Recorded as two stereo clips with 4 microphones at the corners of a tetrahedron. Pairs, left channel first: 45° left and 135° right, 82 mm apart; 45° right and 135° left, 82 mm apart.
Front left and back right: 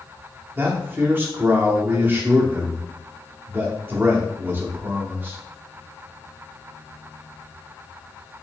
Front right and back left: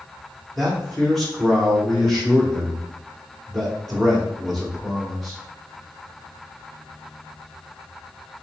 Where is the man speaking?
125° right, 0.9 m.